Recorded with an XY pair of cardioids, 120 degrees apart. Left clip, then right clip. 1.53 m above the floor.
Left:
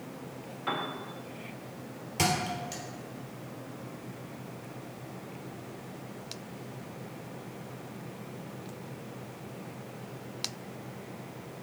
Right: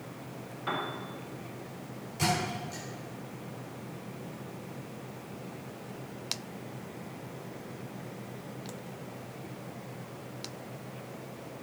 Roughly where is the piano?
Ahead.